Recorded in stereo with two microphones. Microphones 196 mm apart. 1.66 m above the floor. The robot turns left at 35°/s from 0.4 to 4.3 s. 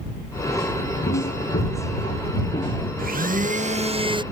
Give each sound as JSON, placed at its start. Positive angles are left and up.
{"t": 1.1, "sound": "footsteps", "side_deg": 75}
{"t": 3.0, "sound": "a blender", "azimuth_deg": -105}